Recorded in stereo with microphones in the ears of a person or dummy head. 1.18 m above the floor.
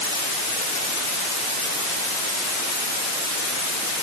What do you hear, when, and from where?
Only background noise.